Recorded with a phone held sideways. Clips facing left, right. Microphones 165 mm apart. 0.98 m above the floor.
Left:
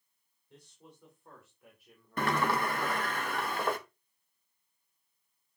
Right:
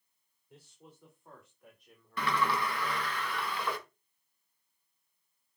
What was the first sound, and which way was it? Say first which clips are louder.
A man speaking: even; 5° right (ahead or behind).